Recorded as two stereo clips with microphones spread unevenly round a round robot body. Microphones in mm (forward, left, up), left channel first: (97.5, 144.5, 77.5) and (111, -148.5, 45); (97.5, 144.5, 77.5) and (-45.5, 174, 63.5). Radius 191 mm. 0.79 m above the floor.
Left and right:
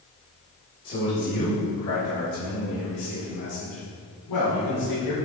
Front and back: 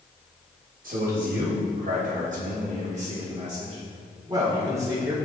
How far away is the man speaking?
About 2 m.